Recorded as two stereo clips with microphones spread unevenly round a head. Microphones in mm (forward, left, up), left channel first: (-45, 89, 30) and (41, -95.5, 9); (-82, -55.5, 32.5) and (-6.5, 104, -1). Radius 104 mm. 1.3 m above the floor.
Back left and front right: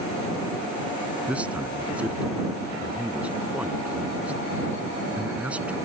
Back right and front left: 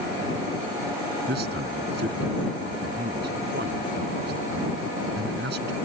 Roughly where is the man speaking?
Ahead.